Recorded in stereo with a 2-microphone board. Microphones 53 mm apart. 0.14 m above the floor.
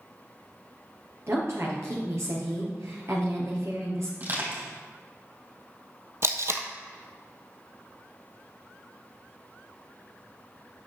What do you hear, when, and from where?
1.3 s a woman speaking: 60° right (ahead or behind), 2.5 m
4.2 s crushing: 40° right (ahead or behind), 3.5 m
6.2 s tape being pulled: 55° right (ahead or behind), 0.8 m